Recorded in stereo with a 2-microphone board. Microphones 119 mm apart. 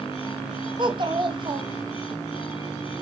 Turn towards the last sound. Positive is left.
turn(degrees=-45)  # may be behind; listen again after turning